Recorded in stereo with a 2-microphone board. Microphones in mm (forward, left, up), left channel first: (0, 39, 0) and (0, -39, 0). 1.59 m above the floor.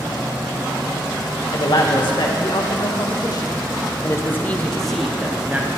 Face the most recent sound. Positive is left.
turn(degrees=-25)  # may be behind; listen again after turning